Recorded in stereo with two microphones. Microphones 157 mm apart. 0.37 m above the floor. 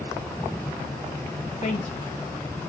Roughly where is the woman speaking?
Left.